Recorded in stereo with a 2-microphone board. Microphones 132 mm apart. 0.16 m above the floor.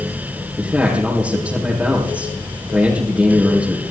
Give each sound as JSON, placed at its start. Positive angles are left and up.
{"t": 0.6, "sound": "a man speaking", "side_deg": -10, "distance_m": 5.0}